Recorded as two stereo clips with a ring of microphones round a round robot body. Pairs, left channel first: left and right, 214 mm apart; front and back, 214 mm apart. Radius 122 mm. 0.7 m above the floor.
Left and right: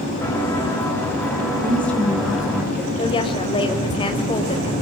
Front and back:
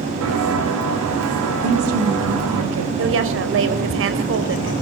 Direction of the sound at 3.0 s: 160° left.